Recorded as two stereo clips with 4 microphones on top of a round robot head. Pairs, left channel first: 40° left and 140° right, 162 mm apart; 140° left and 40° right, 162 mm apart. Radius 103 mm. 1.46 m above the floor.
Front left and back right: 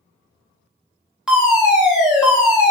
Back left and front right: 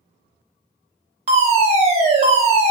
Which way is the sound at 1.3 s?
60° right.